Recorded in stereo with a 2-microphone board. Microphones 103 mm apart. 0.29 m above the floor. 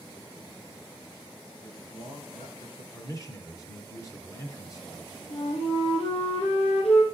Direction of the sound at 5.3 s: 85° left.